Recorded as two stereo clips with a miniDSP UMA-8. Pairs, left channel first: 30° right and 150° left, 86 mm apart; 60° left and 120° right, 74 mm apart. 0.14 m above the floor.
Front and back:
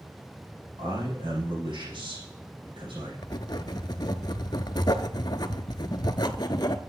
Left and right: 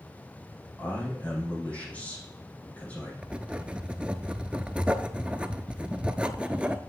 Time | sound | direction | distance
0.8 | a man speaking | 130° left | 6.5 m
3.2 | writing | 50° right | 0.6 m